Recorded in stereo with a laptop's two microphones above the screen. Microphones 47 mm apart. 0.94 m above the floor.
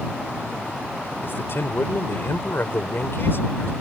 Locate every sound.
1.2 s a man speaking: 55° left (ahead or behind)